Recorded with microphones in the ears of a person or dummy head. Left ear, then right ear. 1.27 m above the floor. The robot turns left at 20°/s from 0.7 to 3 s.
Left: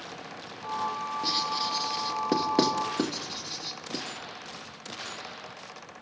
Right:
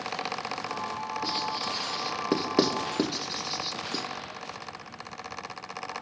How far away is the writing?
About 2.0 m.